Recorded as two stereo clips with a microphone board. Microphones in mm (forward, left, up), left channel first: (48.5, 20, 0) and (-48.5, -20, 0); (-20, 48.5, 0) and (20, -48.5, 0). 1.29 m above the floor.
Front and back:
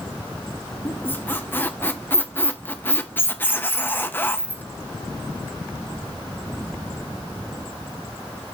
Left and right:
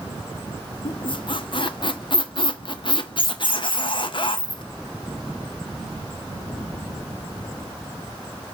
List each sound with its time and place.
0.8 s a squeak: 90° left, 0.7 m